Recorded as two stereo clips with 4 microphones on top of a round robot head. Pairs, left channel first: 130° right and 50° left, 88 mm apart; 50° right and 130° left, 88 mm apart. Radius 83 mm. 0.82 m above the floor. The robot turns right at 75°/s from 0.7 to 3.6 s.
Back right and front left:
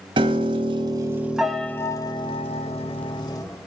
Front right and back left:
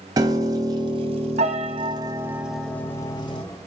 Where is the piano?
80° left, 1.1 m; by 3.4 s 75° right, 1.1 m.